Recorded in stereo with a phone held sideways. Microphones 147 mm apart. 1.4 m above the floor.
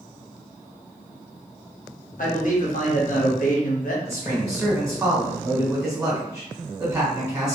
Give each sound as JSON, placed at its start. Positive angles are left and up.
{"t": 2.2, "sound": "a man speaking", "side_deg": 65, "distance_m": 0.9}
{"t": 4.0, "sound": "a man speaking", "side_deg": -20, "distance_m": 1.2}